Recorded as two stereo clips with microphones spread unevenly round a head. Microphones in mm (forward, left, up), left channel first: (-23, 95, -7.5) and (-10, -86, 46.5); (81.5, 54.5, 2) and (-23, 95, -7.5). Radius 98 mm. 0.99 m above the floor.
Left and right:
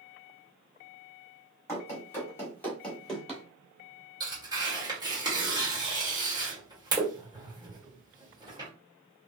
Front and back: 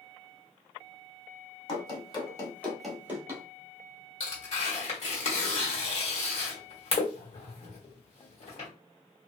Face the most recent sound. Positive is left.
turn(degrees=-10)